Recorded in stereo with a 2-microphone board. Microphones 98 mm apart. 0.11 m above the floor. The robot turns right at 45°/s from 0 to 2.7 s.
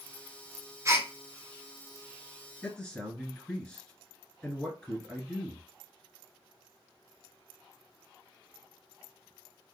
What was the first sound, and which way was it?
A gasp, 30° right (ahead or behind).